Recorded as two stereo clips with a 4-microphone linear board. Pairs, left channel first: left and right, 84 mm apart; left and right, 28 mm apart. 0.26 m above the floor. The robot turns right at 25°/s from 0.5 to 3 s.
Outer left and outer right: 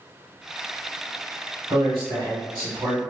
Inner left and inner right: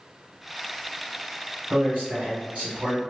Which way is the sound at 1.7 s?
125° right.